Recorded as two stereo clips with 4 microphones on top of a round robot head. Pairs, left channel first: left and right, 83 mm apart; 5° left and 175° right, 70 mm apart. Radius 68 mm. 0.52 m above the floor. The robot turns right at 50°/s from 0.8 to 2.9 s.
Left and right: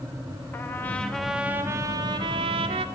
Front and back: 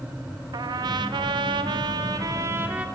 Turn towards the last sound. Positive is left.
turn(degrees=-95)